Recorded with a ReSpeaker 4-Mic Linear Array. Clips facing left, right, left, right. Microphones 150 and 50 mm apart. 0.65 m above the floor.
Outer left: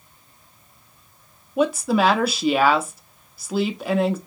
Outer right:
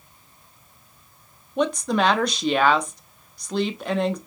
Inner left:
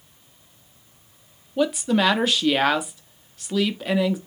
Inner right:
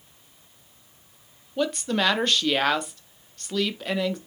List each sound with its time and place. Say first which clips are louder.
1.6 s a woman speaking: outer left 2 dB, inner left 4 dB; 5° left (ahead or behind), 0.5 m